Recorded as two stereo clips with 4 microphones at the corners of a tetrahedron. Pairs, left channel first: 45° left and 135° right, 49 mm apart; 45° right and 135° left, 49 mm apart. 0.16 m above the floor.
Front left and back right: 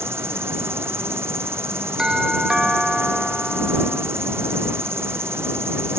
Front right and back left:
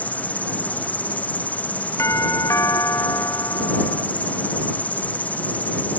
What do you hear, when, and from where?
0.0 s an insect: 105° right
2.0 s a doorbell: 60° right